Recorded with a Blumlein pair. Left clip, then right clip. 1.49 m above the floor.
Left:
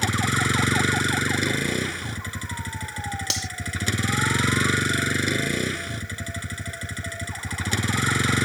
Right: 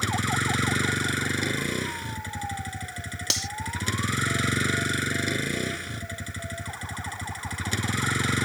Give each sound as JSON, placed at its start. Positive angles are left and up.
{"t": 0.0, "sound": "a vehicle", "azimuth_deg": 10}
{"t": 3.3, "sound": "cutlery clinking", "azimuth_deg": -5}